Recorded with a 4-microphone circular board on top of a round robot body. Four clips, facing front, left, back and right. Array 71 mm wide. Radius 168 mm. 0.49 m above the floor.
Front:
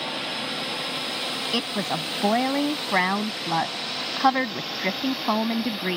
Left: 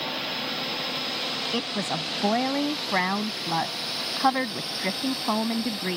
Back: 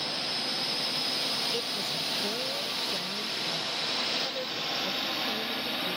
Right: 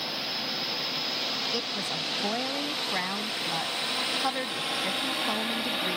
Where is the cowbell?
No cowbell in this recording.